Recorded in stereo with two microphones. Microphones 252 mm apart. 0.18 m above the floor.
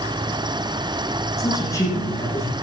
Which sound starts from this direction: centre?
A man speaking, at 1.4 s.